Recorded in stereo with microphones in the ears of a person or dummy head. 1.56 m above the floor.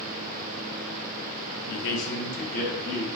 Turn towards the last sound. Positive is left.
turn(degrees=35)  # may be behind; listen again after turning